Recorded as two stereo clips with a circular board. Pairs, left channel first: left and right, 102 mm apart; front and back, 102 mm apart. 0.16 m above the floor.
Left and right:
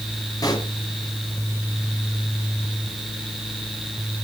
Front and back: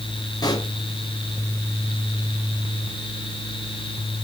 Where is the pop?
45° left, 3 m.